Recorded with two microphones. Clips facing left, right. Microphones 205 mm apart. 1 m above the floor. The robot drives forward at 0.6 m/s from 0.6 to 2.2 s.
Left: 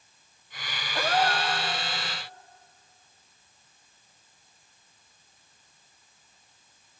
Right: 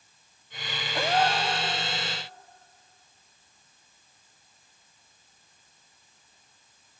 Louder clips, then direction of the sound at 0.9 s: Right 1 dB; 15° right (ahead or behind).